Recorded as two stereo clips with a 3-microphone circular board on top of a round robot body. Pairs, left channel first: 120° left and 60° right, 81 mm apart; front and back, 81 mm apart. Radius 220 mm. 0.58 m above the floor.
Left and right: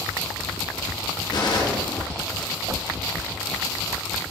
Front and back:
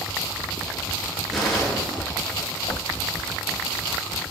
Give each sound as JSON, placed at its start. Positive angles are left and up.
{"t": 1.3, "sound": "a gunshot", "azimuth_deg": 85, "distance_m": 4.5}
{"t": 2.7, "sound": "a whoosh", "azimuth_deg": -20, "distance_m": 0.7}